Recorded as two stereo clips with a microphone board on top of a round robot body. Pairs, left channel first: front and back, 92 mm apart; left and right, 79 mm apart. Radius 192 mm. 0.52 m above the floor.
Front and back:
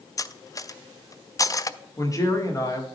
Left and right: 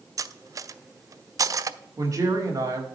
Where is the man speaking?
50° right, 1.8 m.